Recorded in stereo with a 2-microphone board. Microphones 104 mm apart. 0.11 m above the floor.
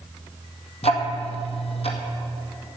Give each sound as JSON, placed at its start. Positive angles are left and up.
{"t": 0.8, "sound": "ticking", "side_deg": 75, "distance_m": 1.9}